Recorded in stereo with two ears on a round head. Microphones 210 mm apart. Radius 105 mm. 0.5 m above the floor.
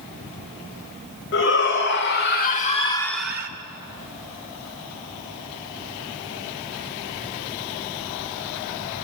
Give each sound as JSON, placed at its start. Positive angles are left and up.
{"t": 1.3, "sound": "a shout", "side_deg": 55, "distance_m": 3.0}